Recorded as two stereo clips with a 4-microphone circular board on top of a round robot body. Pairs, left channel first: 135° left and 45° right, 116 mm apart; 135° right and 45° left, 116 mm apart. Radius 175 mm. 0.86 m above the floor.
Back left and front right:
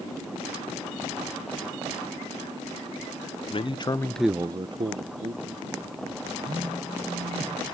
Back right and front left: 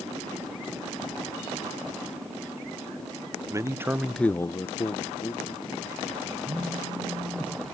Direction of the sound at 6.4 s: 20° right.